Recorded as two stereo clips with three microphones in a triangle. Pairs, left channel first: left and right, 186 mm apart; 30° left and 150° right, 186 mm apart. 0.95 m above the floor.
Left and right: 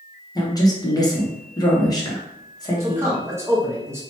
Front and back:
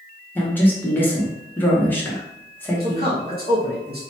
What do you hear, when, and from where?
0.3 s a woman speaking: 90° left, 0.8 m
2.8 s a man speaking: 165° right, 1.2 m